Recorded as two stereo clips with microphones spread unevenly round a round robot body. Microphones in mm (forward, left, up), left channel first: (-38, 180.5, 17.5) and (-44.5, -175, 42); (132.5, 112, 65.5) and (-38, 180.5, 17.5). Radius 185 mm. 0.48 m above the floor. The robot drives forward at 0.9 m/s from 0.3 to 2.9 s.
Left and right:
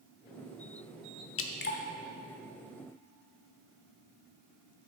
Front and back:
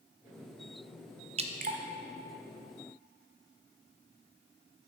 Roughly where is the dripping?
Behind left.